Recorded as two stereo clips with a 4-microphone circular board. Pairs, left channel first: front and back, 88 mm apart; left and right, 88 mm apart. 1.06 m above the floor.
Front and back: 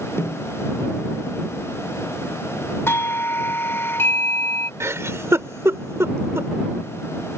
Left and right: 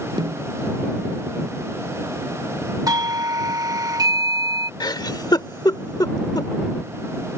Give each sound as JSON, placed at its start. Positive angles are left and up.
{"t": 0.2, "sound": "a snare drum", "azimuth_deg": -60}
{"t": 2.9, "sound": "a doorbell", "azimuth_deg": -55}
{"t": 4.8, "sound": "a giggle", "azimuth_deg": 125}